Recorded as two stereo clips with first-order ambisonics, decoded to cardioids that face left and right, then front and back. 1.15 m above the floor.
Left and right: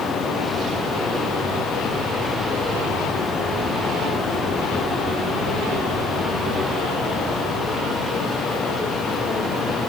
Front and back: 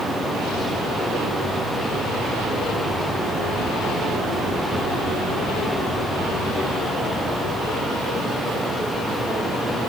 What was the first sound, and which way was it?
Only background noise.